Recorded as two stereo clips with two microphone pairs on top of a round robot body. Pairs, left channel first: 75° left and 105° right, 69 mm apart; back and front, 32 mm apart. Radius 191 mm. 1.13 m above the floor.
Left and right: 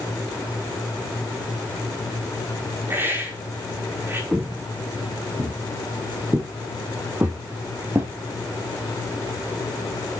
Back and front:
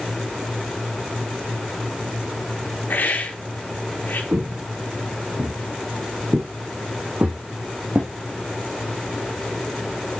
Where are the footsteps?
30° right, 1.9 m; by 8.1 s 50° right, 3.5 m.